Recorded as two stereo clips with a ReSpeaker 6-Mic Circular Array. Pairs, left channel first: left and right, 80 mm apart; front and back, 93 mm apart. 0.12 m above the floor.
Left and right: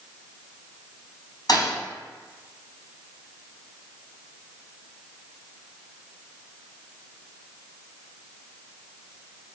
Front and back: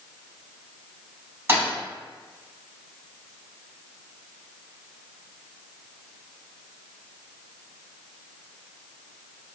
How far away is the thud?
About 1.5 m.